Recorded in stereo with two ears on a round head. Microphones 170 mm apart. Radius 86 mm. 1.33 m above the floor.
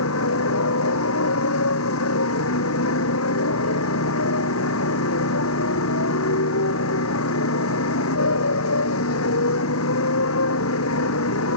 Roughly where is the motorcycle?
Left.